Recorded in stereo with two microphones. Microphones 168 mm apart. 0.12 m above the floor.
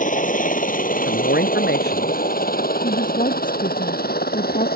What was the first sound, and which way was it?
A helicopter, 50° left (ahead or behind).